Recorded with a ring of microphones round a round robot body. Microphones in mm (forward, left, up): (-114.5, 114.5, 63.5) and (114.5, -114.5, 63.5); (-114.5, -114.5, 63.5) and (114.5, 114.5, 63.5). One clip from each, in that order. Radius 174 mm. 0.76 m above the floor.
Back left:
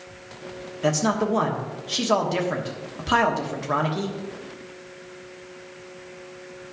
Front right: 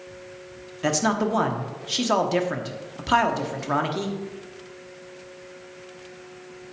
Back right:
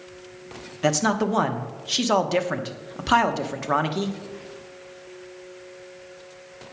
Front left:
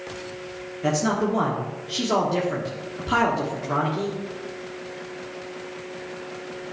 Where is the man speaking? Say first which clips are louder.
Even, back right 1 dB; 120° right, 1.2 m.